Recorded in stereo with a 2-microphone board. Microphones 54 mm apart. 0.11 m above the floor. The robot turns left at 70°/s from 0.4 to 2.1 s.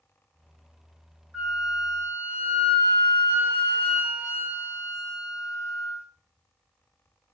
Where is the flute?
10° right, 2 m; by 6.0 s 60° right, 2 m.